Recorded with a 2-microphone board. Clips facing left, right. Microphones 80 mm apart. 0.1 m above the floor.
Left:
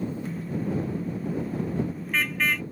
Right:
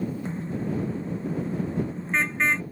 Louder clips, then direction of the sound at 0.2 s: Even; 30° right (ahead or behind).